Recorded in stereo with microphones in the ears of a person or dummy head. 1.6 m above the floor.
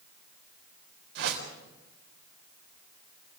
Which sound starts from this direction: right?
A whoosh, at 1.1 s.